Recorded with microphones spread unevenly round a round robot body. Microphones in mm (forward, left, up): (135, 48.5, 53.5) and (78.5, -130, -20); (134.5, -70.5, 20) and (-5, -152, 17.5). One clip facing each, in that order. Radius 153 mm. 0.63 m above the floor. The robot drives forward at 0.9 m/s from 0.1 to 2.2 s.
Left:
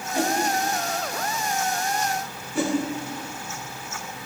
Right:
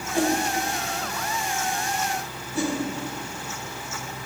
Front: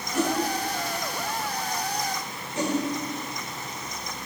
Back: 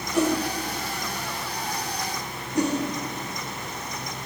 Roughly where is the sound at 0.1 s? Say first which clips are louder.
Right 2 dB, back 3 dB; behind.